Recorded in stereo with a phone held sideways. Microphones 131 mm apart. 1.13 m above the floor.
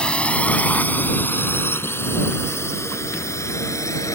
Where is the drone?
10° left (ahead or behind); by 4.2 s 25° left (ahead or behind).